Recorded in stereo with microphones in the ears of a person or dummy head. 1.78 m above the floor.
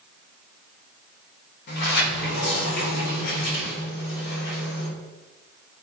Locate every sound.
1.7 s a sliding door: 65° left (ahead or behind), 3 m